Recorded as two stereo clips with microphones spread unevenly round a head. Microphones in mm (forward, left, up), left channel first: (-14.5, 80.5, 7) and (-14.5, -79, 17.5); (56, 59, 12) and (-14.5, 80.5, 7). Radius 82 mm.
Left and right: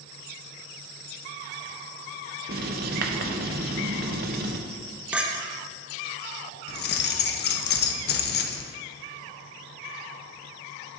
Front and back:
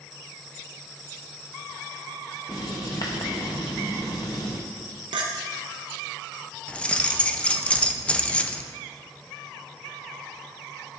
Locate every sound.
2.5 s writing: 65° right, 0.6 m
5.1 s a clink: 175° right, 0.7 m
6.7 s keys jangling: 55° left, 0.6 m